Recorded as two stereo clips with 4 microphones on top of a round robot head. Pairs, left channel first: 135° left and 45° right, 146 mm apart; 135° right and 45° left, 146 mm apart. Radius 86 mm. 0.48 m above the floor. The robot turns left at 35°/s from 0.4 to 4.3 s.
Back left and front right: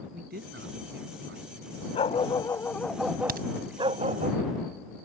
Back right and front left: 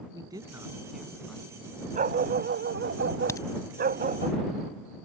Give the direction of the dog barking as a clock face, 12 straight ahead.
9 o'clock.